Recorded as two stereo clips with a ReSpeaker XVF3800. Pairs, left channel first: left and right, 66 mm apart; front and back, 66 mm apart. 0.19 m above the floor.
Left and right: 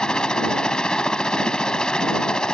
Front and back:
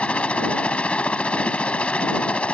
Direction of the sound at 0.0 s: 35° left.